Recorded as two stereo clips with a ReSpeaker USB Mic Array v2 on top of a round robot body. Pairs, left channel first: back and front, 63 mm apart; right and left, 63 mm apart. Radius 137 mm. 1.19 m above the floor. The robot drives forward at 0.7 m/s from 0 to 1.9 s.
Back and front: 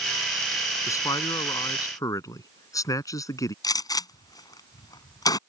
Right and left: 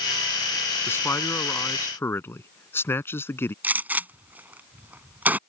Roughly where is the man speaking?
Behind right.